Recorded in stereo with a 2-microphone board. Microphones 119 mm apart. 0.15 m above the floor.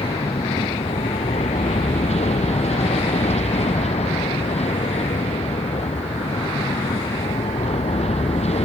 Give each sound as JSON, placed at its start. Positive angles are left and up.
{"t": 0.0, "sound": "an aircraft", "side_deg": 75}